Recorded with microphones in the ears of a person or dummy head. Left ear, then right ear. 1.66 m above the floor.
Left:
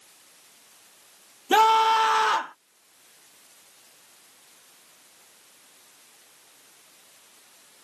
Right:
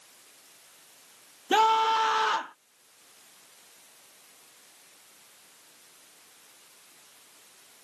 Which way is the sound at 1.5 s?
15° left (ahead or behind).